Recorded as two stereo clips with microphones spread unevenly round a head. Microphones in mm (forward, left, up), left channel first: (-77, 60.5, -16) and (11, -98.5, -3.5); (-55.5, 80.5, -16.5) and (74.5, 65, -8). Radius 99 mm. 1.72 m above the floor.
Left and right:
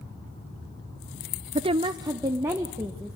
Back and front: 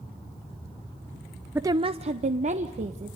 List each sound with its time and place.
1.6 s a woman speaking: 65° right, 0.5 m; by 3.2 s 20° left, 1.8 m